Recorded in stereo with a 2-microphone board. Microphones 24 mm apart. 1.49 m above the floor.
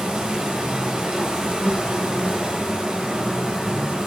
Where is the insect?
35° right (ahead or behind), 0.8 m.